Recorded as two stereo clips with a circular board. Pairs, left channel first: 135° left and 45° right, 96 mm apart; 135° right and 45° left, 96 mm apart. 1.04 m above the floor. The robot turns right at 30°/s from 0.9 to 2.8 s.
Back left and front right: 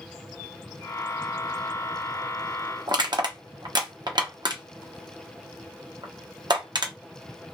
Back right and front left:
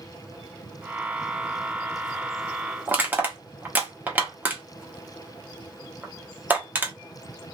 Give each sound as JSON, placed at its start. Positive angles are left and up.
{"t": 2.9, "sound": "crushing", "azimuth_deg": -20, "distance_m": 0.9}